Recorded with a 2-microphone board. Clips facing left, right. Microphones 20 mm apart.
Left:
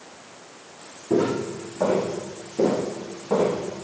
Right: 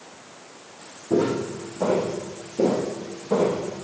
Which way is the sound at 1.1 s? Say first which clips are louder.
Even; 60° left (ahead or behind).